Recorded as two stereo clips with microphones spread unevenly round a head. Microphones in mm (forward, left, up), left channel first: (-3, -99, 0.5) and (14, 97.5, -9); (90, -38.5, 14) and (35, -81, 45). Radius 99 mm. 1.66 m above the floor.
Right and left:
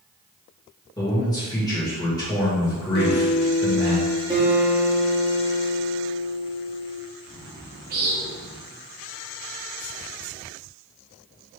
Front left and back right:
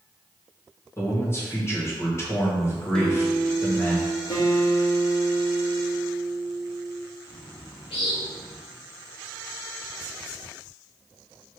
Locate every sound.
1.0 s a man speaking: 25° right, 2 m
3.0 s a guitar: 50° right, 0.9 m
4.3 s a guitar: 25° left, 1.3 m
7.3 s a bird: 55° left, 1.2 m